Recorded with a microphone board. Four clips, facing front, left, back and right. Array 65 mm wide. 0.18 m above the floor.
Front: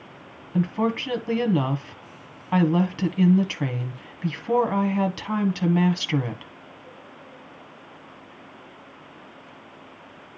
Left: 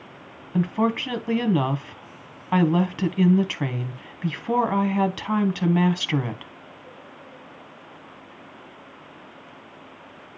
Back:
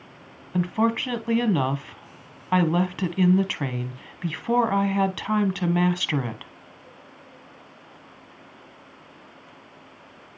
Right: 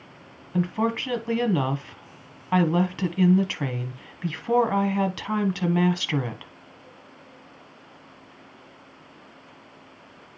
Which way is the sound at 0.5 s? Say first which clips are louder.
Left 2 dB, back 1 dB; 160° left.